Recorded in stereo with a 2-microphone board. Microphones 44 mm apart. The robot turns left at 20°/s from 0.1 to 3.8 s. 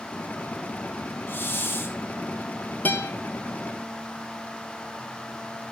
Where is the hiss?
50° left (ahead or behind), 4.5 m; by 2.0 s 65° left (ahead or behind), 4.5 m.